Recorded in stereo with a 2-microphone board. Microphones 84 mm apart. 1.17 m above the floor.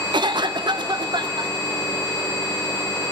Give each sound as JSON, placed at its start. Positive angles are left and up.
{"t": 0.1, "sound": "a cough", "side_deg": -60, "distance_m": 1.1}